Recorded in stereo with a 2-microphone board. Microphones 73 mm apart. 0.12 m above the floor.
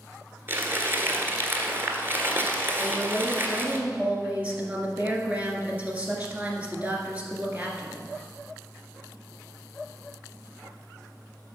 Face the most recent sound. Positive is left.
turn(degrees=-20)  # may be behind; listen again after turning